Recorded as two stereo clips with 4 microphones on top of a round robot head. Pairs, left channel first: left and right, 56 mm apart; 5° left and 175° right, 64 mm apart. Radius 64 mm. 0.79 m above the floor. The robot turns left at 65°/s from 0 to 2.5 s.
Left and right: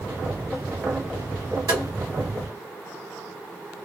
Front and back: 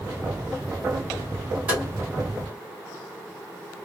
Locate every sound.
1.7 s tapping: 110° right, 1.5 m; by 1.8 s 120° right, 1.5 m